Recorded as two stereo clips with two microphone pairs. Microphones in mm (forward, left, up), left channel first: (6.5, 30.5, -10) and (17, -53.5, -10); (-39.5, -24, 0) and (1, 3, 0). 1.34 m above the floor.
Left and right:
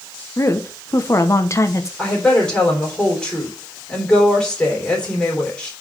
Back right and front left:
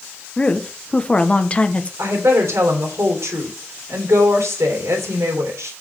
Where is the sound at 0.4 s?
150° left, 1.1 m.